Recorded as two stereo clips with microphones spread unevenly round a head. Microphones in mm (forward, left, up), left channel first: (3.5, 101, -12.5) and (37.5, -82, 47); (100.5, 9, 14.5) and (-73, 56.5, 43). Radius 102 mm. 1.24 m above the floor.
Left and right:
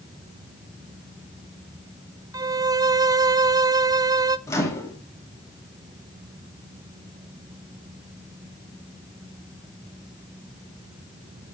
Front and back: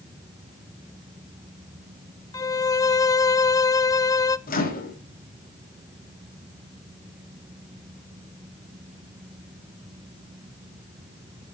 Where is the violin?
5° left, 0.5 m.